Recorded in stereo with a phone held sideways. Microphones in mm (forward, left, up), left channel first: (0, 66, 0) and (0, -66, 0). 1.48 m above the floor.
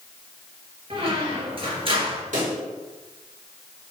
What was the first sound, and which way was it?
A squeak, 45° right (ahead or behind).